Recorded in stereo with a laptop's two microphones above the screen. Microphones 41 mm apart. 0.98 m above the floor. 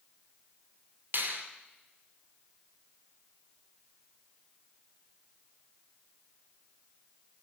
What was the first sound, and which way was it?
A finger snap, 65° right (ahead or behind).